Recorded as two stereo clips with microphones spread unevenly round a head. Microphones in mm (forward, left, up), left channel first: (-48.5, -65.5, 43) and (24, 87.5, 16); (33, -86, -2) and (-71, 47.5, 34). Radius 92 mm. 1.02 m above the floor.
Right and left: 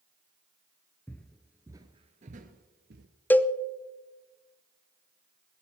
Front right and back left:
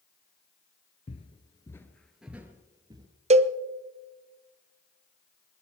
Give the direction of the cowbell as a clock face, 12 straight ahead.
7 o'clock.